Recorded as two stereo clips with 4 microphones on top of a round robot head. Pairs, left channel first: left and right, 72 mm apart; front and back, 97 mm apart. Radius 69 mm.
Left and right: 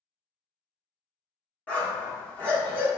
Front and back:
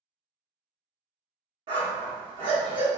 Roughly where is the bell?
No bell in this recording.